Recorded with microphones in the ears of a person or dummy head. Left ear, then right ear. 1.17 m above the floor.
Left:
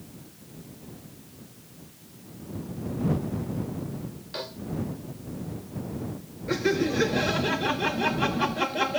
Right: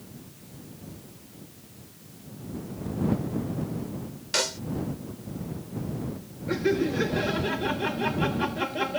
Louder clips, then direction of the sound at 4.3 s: Right 9 dB; 70° right (ahead or behind).